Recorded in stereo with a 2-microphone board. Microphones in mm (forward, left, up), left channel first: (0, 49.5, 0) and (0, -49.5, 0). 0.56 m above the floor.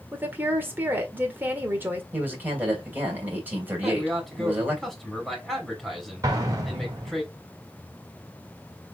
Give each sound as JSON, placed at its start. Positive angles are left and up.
{"t": 0.1, "sound": "a woman speaking", "side_deg": -20, "distance_m": 1.6}
{"t": 2.1, "sound": "a man speaking", "side_deg": -20, "distance_m": 3.0}
{"t": 3.8, "sound": "a man speaking", "side_deg": 0, "distance_m": 3.0}
{"t": 6.2, "sound": "an explosion", "side_deg": -35, "distance_m": 1.9}